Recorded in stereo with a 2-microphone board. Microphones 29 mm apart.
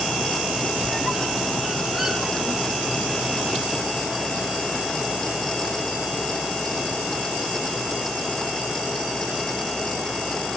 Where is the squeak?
Centre (ahead or behind), 1.8 m.